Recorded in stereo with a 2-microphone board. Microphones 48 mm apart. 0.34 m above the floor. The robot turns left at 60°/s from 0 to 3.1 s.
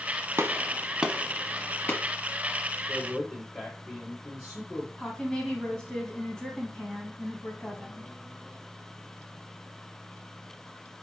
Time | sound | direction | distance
0.4 | a gunshot | 50° right (ahead or behind) | 1.1 m
2.9 | a man speaking | 30° left (ahead or behind) | 4.5 m
5.0 | a woman speaking | 10° left (ahead or behind) | 3 m